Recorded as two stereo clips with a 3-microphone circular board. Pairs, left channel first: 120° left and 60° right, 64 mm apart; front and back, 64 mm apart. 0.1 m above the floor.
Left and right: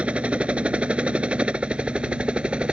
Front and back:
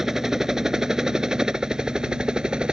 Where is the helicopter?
105° right; by 2.7 s 115° right.